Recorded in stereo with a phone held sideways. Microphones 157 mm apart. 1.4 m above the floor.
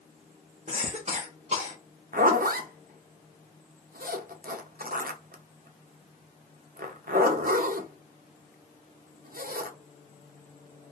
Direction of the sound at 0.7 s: 50° right (ahead or behind).